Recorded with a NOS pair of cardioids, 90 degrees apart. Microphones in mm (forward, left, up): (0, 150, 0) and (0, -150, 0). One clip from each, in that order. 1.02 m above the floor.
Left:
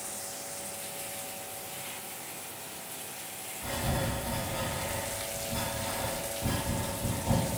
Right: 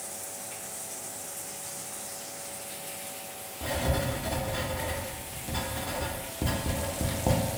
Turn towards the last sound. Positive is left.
turn(degrees=-60)